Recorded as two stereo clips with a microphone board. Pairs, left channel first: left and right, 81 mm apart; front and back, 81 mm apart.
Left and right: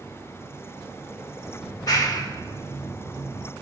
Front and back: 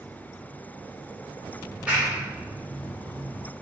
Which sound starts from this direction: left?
A clap, at 1.6 s.